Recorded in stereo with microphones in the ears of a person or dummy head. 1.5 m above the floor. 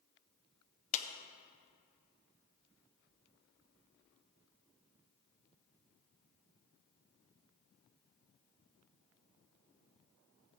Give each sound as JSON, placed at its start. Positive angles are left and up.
{"t": 0.9, "sound": "a clap", "side_deg": 45, "distance_m": 0.7}